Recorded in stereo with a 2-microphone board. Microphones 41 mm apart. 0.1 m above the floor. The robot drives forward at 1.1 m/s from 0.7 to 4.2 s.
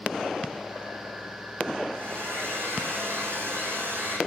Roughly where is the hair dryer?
Right.